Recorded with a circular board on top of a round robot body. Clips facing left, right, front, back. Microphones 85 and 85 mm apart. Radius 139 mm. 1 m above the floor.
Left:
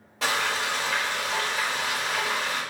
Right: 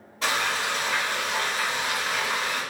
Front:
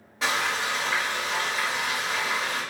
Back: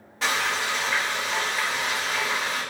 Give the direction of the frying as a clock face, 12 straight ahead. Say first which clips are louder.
Even, back 1 dB; 9 o'clock.